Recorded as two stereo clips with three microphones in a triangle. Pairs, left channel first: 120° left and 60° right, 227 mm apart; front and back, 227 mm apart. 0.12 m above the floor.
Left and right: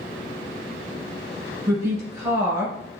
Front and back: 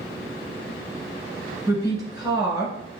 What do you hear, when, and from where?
1.7 s a woman speaking: 125° right, 1.2 m